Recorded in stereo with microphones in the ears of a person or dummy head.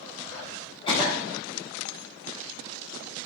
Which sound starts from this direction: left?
A cough, at 0.9 s.